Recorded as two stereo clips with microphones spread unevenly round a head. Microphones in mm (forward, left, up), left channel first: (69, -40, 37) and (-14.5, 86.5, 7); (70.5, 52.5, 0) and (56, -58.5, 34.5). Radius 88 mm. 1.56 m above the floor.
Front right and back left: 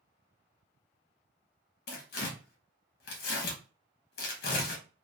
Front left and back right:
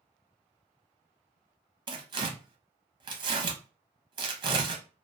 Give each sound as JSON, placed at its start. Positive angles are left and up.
{"t": 1.9, "sound": "tearing paper", "azimuth_deg": -60, "distance_m": 0.7}